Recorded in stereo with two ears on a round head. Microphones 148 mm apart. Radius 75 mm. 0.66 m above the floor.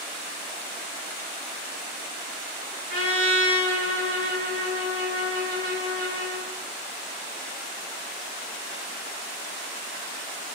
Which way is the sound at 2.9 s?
55° right (ahead or behind).